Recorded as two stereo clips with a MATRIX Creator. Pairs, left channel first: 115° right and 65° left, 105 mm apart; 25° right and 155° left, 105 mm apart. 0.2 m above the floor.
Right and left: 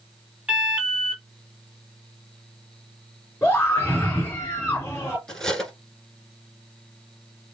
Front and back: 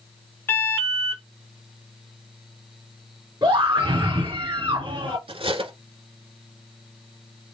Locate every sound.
0.5 s an alarm: straight ahead, 1.8 m
3.4 s a scream: 175° right, 2.5 m
5.3 s cutlery clinking: 160° left, 1.4 m